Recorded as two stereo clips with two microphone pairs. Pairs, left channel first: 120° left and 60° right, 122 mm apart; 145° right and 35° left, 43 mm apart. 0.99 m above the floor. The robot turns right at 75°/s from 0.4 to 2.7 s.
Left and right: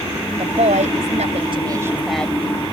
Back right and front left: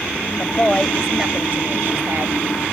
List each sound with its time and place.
0.4 s a woman speaking: 100° right; by 2.4 s 50° left